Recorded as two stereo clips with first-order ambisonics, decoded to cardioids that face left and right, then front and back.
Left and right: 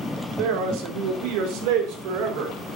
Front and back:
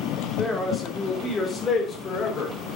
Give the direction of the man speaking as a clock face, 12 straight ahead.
3 o'clock.